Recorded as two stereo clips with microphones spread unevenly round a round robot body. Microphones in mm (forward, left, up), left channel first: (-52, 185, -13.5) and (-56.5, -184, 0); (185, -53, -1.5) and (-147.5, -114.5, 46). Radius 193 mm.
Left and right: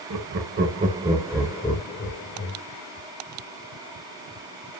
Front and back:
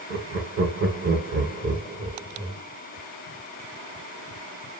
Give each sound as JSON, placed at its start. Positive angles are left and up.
{"t": 0.1, "sound": "laughter", "azimuth_deg": -125, "distance_m": 1.1}